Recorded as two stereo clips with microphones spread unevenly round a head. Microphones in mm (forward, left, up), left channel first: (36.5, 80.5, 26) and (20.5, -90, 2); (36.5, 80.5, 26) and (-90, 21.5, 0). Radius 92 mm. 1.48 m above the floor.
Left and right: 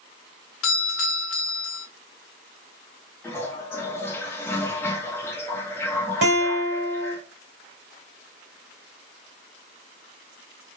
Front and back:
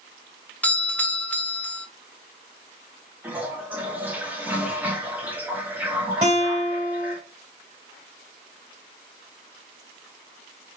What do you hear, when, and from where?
0.6 s a doorbell: 110° left, 0.5 m
3.2 s a toilet flushing: 115° left, 0.7 m
6.2 s a guitar: 80° right, 1.9 m